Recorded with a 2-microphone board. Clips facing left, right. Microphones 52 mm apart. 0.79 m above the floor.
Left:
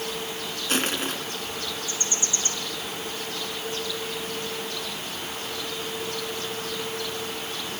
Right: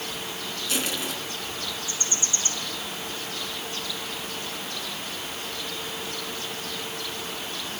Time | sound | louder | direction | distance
0.7 | crushing | left 4 dB | 45° left (ahead or behind) | 4 m